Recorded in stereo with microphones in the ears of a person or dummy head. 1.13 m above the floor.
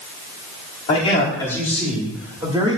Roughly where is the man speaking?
Left.